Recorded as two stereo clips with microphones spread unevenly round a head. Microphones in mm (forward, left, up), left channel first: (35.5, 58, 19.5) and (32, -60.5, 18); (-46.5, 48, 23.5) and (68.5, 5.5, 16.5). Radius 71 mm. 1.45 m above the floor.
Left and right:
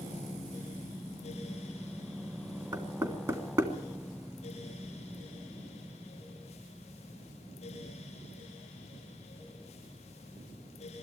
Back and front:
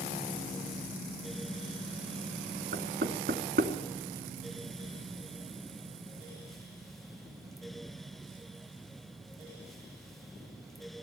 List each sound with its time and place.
2.7 s knocking: 30° right, 3 m